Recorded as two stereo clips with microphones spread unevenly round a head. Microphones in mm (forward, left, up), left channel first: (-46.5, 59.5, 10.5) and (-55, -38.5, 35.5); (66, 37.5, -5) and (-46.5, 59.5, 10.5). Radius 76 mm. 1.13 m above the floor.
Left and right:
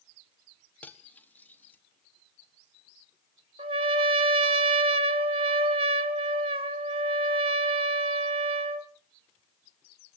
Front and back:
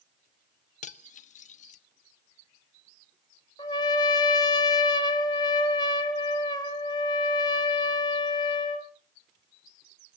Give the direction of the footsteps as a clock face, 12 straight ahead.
I don't hear footsteps.